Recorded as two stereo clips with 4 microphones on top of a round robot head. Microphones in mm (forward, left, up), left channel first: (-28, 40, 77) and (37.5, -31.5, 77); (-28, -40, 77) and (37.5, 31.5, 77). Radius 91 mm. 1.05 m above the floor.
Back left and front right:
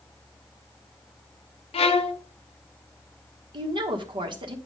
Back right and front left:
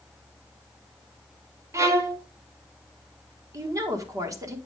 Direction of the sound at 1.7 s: 110° left.